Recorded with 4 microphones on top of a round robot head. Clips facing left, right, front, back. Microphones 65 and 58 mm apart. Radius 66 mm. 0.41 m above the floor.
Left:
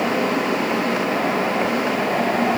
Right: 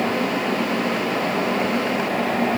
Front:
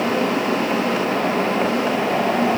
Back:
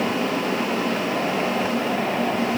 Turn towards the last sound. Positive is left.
No sound to turn to.